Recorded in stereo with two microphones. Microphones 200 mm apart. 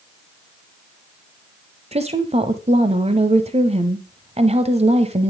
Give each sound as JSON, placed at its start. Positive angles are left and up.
{"t": 1.9, "sound": "a woman speaking", "side_deg": -30, "distance_m": 1.2}